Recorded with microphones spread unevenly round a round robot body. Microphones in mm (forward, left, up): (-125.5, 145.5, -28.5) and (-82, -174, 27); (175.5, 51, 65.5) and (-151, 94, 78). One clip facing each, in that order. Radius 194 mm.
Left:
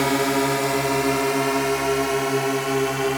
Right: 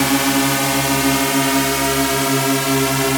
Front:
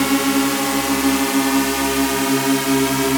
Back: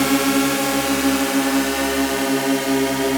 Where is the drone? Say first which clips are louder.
Right 4 dB, even; 90° right; by 3.2 s 70° right.